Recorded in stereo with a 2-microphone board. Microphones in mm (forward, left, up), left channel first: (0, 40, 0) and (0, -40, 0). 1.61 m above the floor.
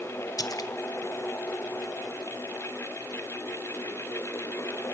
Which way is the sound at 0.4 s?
45° left (ahead or behind).